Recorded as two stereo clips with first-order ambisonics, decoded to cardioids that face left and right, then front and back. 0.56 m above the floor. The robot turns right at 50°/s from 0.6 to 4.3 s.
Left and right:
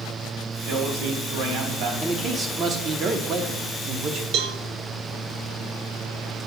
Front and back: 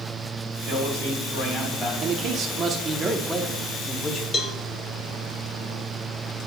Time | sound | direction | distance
0.7 | a man speaking | 145° right | 2.5 m
2.0 | a man speaking | 165° right | 0.8 m
4.3 | a cowbell | 60° right | 0.5 m